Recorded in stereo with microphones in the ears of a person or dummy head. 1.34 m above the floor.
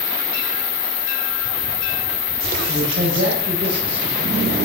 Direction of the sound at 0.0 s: 70° left (ahead or behind).